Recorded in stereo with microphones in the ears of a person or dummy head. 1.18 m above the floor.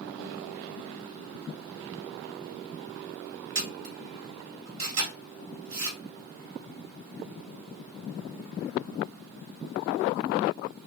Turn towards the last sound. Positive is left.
turn(degrees=-75)  # may be behind; listen again after turning